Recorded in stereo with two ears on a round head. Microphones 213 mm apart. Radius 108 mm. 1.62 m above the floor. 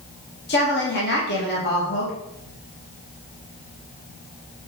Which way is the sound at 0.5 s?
50° left (ahead or behind).